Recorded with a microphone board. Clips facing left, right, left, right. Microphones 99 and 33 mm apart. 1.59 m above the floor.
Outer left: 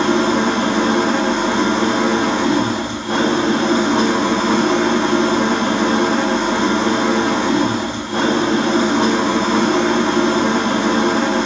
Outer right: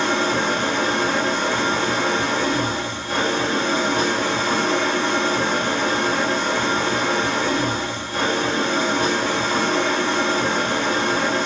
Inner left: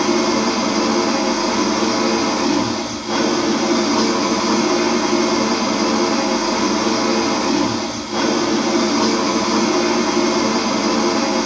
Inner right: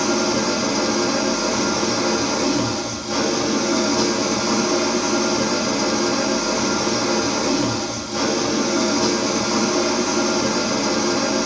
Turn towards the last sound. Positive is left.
turn(degrees=65)  # may be behind; listen again after turning